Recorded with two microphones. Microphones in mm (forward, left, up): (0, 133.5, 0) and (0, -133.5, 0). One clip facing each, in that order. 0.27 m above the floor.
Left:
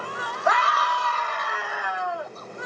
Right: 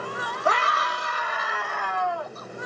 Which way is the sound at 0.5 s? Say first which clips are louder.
Left 1 dB; 35° right (ahead or behind).